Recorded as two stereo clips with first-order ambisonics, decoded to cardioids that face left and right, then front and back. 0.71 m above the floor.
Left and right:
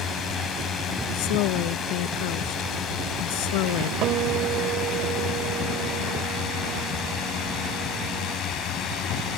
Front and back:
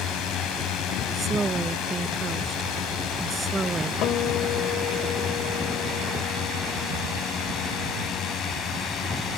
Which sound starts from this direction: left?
A woman speaking, at 1.1 s.